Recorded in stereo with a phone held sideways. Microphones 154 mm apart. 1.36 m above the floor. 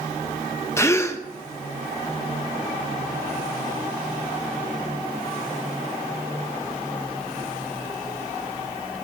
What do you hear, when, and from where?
0.8 s a gasp: 20° left (ahead or behind), 0.8 m